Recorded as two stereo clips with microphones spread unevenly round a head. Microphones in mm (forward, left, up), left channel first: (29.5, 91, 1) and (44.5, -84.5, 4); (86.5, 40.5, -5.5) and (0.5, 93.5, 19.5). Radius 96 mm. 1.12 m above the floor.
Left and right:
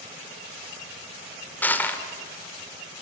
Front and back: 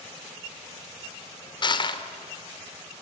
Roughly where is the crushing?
Ahead.